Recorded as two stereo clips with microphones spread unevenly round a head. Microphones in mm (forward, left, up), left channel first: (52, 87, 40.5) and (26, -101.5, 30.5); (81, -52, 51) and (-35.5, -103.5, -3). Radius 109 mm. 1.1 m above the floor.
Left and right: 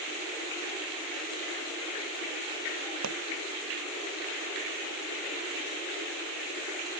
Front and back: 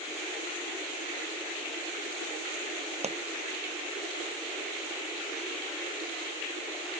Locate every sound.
3.0 s a pop: 120° right